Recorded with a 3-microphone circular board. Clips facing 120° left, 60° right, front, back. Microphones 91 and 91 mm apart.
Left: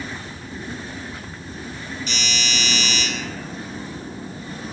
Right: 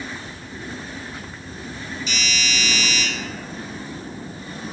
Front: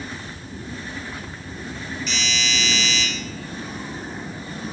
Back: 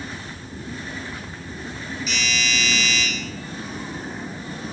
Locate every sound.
2.1 s a doorbell: 95° left, 3 m